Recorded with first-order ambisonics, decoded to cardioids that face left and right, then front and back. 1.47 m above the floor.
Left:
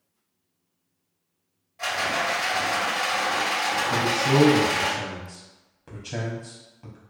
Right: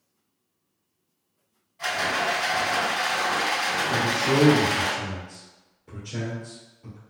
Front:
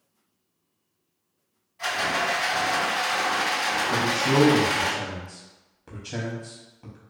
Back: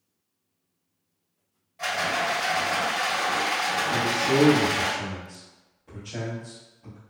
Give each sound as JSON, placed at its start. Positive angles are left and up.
{"t": 1.8, "sound": "a rattle", "azimuth_deg": 130, "distance_m": 1.7}
{"t": 3.9, "sound": "a man speaking", "azimuth_deg": 55, "distance_m": 0.6}